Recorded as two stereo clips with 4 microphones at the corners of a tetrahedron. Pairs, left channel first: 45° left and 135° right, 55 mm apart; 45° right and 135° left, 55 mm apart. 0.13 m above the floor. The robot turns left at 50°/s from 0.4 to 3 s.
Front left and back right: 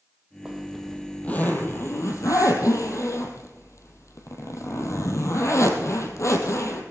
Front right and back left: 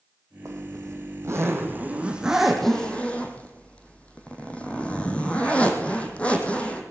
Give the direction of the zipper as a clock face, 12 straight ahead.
7 o'clock.